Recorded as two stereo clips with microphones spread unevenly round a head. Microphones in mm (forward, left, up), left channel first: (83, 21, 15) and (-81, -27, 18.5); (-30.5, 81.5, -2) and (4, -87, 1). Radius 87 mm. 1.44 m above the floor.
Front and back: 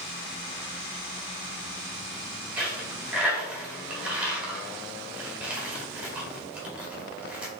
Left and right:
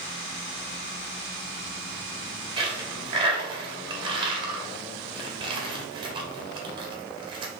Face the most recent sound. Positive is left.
turn(degrees=-90)